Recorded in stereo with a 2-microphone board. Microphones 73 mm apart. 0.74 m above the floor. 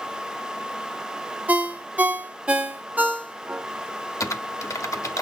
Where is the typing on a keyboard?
45° left (ahead or behind), 0.9 m.